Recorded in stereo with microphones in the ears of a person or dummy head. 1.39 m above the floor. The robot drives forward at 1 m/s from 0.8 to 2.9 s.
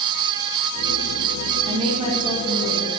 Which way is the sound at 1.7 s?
40° right (ahead or behind).